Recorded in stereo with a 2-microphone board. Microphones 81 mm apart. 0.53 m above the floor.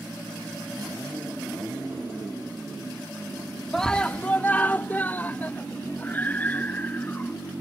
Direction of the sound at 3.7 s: 5° left (ahead or behind).